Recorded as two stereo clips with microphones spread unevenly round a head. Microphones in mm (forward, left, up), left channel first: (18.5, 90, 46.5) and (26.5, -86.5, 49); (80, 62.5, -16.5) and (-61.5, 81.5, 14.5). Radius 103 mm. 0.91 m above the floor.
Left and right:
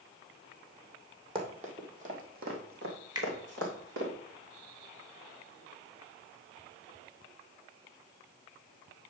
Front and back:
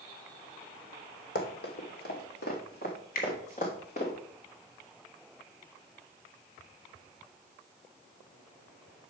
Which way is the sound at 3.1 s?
20° right.